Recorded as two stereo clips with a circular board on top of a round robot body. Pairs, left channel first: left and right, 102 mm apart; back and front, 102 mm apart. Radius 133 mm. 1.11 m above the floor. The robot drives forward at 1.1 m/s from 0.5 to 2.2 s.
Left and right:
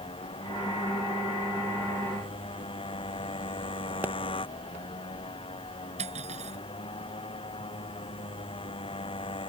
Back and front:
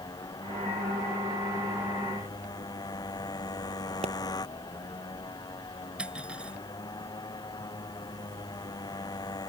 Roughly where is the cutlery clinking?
Right.